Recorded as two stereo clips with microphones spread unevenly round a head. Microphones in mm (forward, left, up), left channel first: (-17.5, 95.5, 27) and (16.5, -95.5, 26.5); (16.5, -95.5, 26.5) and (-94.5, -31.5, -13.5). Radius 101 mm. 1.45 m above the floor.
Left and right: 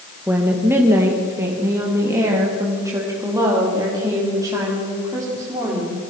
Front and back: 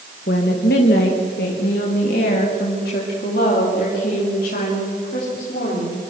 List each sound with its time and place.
0.3 s a woman speaking: straight ahead, 1.8 m; by 6.0 s 5° right, 5 m